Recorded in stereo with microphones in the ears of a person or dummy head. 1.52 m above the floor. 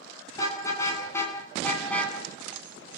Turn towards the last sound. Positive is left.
turn(degrees=10)  # may be behind; listen again after turning